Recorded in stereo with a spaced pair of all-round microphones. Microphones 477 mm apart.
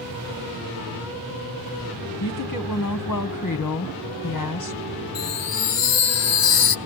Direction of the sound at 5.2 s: 90° left.